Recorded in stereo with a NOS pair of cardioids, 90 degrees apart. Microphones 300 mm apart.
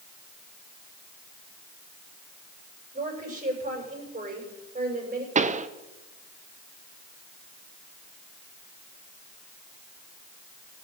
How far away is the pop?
About 1.0 m.